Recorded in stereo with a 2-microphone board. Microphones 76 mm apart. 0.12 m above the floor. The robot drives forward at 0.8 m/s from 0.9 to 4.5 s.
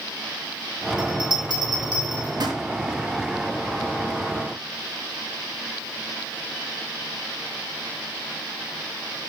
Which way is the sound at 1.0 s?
70° right (ahead or behind).